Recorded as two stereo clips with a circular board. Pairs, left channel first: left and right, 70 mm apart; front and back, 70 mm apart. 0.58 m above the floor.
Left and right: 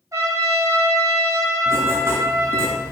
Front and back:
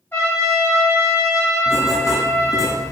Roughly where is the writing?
Ahead right.